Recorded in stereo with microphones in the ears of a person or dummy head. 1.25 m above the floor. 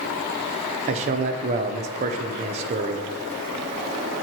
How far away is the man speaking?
About 0.5 m.